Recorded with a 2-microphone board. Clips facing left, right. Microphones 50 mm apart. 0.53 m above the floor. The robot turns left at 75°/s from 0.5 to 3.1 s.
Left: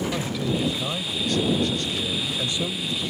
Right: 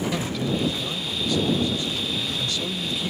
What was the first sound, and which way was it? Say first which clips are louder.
A man speaking: even; 175° left.